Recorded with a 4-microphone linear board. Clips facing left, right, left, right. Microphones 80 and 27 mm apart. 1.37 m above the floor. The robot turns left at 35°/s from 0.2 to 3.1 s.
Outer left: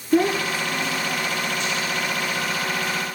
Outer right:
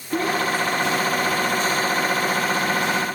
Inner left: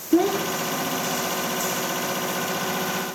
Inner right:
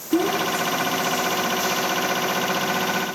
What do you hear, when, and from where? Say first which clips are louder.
0.1 s a child speaking: outer left 2 dB, even; 30° left (ahead or behind), 2.5 m; by 1.6 s 20° right (ahead or behind), 2.5 m